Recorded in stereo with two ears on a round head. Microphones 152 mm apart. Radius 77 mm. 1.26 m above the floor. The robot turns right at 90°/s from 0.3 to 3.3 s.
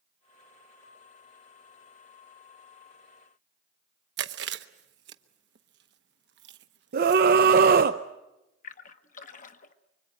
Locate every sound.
4.2 s chewing: 70° right (ahead or behind), 1.0 m
6.9 s a scream: 60° right (ahead or behind), 0.6 m
8.6 s a splash: 45° left (ahead or behind), 1.0 m